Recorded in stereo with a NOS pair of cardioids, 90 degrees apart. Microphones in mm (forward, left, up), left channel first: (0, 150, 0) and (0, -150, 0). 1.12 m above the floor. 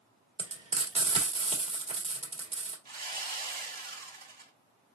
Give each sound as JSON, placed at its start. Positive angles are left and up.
{"t": 0.4, "sound": "frying", "azimuth_deg": -20, "distance_m": 1.6}
{"t": 2.9, "sound": "sawing", "azimuth_deg": -30, "distance_m": 1.8}